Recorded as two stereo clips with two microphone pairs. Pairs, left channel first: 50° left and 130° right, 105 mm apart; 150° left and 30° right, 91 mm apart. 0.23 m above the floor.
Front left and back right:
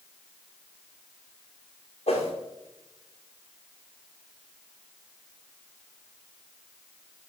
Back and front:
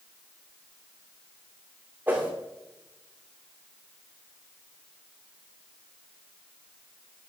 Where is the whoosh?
40° left, 2.5 m.